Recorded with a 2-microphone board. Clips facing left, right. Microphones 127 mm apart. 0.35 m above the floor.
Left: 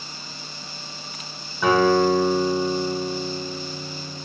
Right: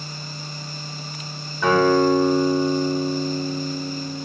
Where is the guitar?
5° left (ahead or behind), 0.6 m.